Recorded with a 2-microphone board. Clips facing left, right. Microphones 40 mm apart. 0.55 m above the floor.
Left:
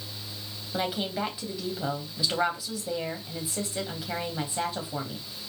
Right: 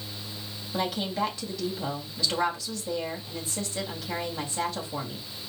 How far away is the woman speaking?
About 3 m.